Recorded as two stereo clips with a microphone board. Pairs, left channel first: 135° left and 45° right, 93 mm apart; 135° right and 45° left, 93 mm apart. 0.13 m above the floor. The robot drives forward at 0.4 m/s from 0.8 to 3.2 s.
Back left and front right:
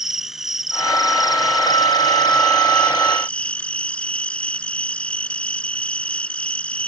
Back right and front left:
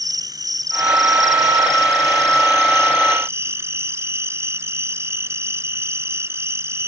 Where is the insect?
40° left; by 6.9 s 70° left.